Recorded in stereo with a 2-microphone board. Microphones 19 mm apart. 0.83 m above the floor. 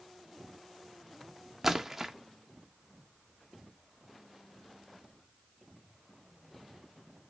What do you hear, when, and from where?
1.6 s a splash: 15° right (ahead or behind), 0.8 m